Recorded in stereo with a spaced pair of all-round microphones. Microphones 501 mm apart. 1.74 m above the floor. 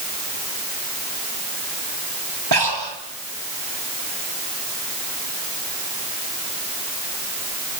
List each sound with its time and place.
2.5 s breathing: 50° right (ahead or behind), 2.5 m